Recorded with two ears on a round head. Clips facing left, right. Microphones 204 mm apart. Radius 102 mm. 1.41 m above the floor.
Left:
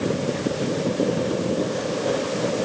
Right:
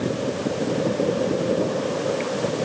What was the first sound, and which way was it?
Only background noise.